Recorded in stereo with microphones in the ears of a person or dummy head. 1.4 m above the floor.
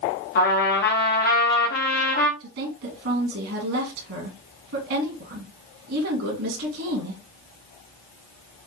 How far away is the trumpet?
About 1.6 m.